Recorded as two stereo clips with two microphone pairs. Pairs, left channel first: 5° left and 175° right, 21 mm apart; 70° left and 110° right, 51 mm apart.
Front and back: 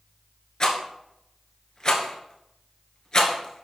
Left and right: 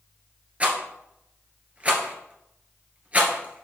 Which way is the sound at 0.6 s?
50° right.